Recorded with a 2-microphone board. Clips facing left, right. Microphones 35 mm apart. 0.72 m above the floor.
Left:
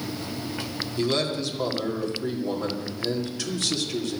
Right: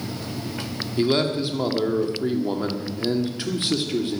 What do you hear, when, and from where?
1.0 s a man speaking: 25° right (ahead or behind), 2 m